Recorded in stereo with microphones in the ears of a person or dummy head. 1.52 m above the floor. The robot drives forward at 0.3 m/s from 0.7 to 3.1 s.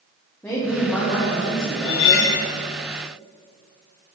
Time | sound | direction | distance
0.4 | a woman speaking | 10° left (ahead or behind) | 1.6 m
1.8 | cutlery clinking | 25° left (ahead or behind) | 0.6 m